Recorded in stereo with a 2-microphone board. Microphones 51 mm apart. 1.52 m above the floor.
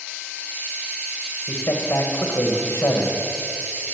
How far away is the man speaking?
About 1.9 m.